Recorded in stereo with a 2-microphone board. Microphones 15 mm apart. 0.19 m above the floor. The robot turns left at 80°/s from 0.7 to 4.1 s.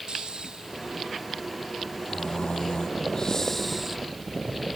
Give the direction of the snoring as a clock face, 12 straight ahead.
4 o'clock.